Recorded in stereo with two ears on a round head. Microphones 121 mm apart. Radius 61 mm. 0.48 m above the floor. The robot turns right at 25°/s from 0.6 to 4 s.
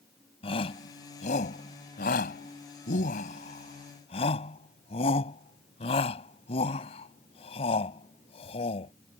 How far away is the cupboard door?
No cupboard door in this recording.